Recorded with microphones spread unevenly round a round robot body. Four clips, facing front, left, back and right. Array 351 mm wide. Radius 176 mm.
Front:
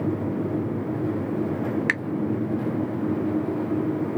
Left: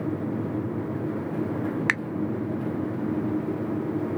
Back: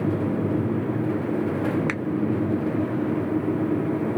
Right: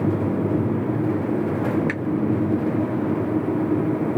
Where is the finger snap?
90° left, 1.0 m.